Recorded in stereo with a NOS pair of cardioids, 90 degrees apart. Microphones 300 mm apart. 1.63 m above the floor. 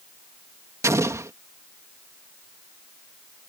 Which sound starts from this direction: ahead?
An explosion, at 0.8 s.